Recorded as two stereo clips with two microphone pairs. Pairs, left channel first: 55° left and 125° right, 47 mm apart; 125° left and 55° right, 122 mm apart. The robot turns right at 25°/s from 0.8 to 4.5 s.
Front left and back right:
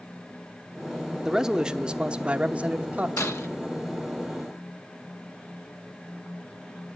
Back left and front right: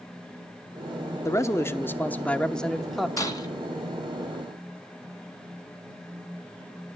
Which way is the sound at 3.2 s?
65° left.